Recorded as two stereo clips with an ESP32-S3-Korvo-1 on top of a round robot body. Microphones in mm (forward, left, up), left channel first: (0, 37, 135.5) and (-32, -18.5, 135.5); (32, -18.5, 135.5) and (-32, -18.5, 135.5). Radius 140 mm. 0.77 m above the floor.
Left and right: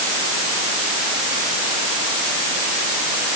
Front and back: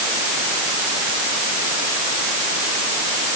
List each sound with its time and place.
Only background noise.